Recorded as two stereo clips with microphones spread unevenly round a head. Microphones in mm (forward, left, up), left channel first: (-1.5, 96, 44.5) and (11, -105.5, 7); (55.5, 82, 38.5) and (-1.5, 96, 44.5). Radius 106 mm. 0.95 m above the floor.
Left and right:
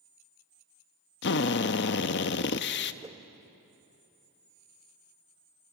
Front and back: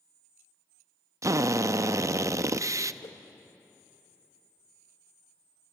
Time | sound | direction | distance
1.2 | a drill | 135° left | 0.7 m
3.0 | a whoosh | 15° right | 1.1 m